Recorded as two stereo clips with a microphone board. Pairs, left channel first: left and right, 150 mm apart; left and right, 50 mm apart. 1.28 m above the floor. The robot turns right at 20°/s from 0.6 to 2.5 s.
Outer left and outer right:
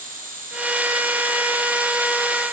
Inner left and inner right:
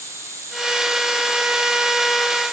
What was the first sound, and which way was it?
An insect, 105° right.